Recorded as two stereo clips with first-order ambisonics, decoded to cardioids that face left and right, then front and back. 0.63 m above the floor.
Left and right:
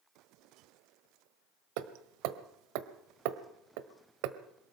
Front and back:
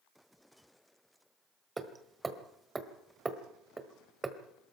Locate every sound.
1.8 s hammering: 100° right, 1.4 m